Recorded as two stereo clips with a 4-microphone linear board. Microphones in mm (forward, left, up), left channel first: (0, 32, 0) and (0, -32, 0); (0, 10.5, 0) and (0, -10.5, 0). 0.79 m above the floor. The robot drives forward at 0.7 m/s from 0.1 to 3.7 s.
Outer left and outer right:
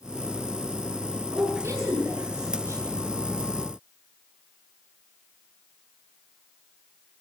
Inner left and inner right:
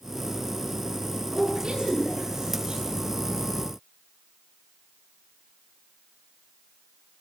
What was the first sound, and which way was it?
A woman speaking, 50° right (ahead or behind).